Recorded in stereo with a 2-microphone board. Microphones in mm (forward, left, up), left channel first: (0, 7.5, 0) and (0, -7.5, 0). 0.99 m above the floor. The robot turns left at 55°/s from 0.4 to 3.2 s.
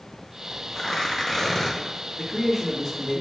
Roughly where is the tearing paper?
Left.